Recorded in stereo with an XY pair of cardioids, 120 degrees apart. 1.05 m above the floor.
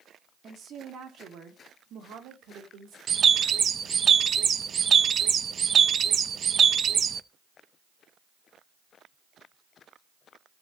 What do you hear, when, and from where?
0.4 s a woman speaking: 45° right, 2.5 m; by 3.0 s 80° right, 3.5 m
3.1 s a bird: 40° right, 0.6 m